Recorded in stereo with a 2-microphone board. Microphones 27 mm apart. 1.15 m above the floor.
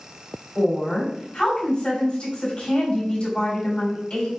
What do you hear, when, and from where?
0.6 s a woman speaking: 40° left (ahead or behind), 2.5 m